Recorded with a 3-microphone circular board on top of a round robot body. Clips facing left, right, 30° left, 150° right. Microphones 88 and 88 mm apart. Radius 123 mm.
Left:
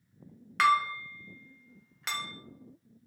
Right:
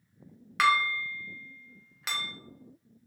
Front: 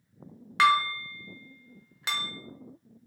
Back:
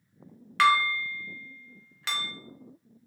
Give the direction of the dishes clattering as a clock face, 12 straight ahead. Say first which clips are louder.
Even, even; 12 o'clock.